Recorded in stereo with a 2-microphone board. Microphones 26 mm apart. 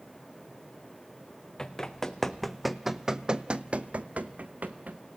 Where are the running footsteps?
25° left (ahead or behind), 1.3 m; by 5.0 s 80° right, 1.3 m.